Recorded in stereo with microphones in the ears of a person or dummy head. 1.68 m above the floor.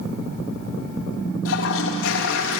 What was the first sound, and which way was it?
A toilet flushing, 70° left (ahead or behind).